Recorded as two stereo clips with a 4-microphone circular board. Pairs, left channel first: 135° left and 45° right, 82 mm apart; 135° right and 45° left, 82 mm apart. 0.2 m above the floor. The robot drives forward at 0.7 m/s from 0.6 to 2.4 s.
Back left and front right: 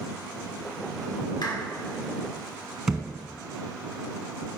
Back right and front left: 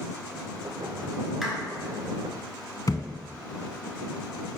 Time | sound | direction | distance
1.4 | a clap | 130° left | 1.8 m
2.9 | a thud | 125° right | 0.8 m